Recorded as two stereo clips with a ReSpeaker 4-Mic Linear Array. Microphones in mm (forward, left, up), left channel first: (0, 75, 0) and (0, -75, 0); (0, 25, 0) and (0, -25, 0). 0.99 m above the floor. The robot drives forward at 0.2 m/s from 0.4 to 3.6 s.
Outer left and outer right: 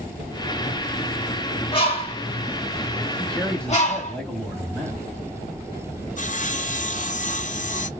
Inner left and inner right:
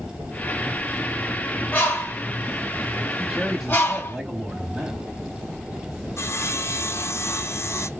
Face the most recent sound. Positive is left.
turn(degrees=55)  # may be behind; listen again after turning